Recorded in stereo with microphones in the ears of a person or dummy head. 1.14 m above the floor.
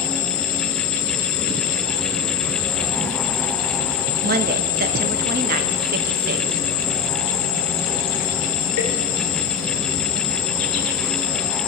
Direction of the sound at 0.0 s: 70° left (ahead or behind).